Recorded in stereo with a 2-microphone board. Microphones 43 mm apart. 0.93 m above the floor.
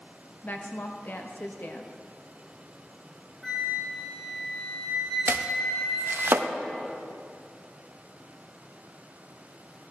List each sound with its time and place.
0.4 s a woman speaking: 50° left (ahead or behind), 1.1 m
3.4 s a flute: 5° left (ahead or behind), 3.5 m
5.3 s chopping: 60° right (ahead or behind), 0.6 m